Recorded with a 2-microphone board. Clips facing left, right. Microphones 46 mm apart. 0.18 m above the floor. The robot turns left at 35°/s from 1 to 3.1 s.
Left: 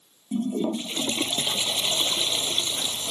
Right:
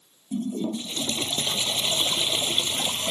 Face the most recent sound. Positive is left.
turn(degrees=-45)